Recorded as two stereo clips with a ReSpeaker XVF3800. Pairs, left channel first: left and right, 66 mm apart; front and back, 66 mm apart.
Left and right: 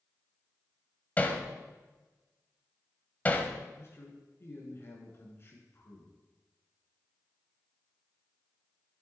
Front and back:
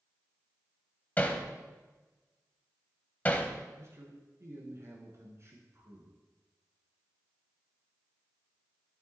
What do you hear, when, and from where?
1.2 s hammering: 45° left, 1.2 m
3.8 s a man speaking: 140° left, 3 m